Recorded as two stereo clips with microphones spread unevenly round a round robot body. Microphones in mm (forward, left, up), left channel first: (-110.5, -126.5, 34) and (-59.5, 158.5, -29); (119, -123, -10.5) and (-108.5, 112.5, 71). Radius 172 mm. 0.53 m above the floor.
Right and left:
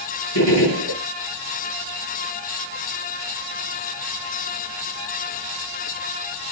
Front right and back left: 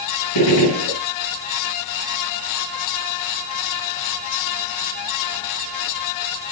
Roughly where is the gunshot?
Right.